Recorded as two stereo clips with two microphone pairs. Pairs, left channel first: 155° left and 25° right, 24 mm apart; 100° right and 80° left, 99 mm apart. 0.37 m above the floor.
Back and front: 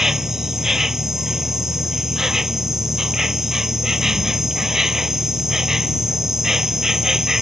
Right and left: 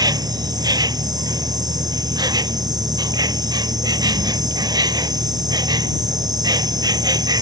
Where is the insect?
40° left.